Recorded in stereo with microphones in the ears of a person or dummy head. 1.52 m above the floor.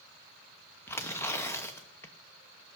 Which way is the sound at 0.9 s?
15° left (ahead or behind).